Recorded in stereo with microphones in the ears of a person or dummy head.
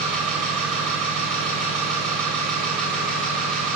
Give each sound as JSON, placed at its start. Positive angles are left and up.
{"t": 0.0, "sound": "an engine running", "side_deg": 5, "distance_m": 4.5}